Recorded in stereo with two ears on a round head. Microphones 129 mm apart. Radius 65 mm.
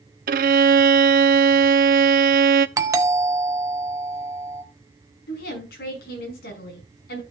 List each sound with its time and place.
0.3 s a violin: 60° right (ahead or behind), 0.6 m
2.8 s a doorbell: 20° right (ahead or behind), 1.0 m
5.3 s a woman speaking: 80° left, 6 m